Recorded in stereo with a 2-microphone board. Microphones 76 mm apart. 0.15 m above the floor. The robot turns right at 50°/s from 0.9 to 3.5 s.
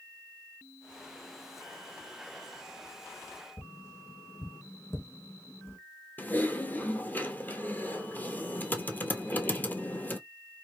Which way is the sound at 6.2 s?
25° left (ahead or behind).